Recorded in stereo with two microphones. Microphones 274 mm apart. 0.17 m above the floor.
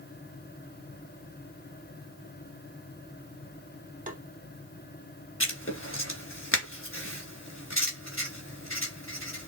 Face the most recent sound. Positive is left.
turn(degrees=50)  # may be behind; listen again after turning